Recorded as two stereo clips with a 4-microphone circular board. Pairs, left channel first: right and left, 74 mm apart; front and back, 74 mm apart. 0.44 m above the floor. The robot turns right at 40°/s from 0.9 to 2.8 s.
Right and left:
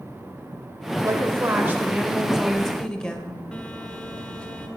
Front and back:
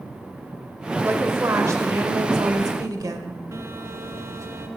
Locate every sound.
1.0 s a woman speaking: 120° left, 1.7 m; by 3.4 s 165° right, 1.7 m
3.5 s a phone buzzing: 160° right, 1.2 m